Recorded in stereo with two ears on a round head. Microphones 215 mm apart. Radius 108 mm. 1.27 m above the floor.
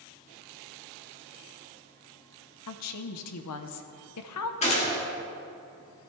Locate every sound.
2.7 s a woman speaking: 70° left (ahead or behind), 0.9 m
4.6 s a gunshot: 30° left (ahead or behind), 2 m